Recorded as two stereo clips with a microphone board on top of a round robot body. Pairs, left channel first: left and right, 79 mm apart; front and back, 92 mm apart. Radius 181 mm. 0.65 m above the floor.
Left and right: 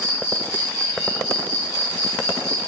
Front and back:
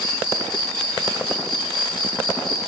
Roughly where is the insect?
Left.